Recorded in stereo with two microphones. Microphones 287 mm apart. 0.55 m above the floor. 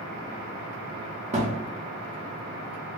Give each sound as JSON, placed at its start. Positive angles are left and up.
{"t": 1.3, "sound": "a thud", "side_deg": -25, "distance_m": 0.5}